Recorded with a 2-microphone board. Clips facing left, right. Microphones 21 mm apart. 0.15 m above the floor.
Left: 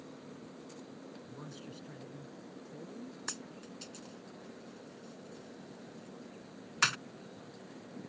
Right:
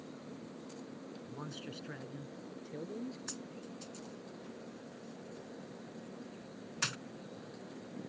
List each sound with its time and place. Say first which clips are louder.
1.3 s a man speaking: right 5 dB; 20° right (ahead or behind); by 3.2 s 50° right (ahead or behind)
3.3 s a dropped coin: left 1 dB; 40° left (ahead or behind)